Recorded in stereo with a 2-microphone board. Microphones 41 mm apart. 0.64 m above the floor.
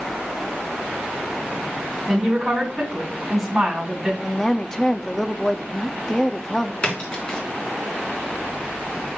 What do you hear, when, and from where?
2.1 s a woman speaking: 10° right (ahead or behind), 5 m
4.2 s a woman speaking: 15° left (ahead or behind), 0.6 m
6.8 s a splash: 30° left (ahead or behind), 3 m